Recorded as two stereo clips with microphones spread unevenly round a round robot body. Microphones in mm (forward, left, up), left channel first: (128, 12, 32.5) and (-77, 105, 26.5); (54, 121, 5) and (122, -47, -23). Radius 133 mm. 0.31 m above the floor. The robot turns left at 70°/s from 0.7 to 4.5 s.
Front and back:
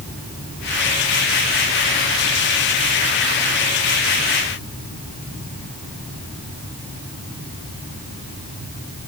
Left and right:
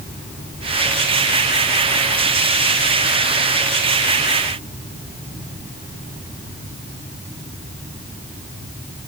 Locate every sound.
Only background noise.